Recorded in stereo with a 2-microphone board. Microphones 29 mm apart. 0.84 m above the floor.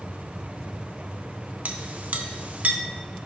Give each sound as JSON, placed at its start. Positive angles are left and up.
{"t": 1.6, "sound": "a clink", "side_deg": -60, "distance_m": 0.7}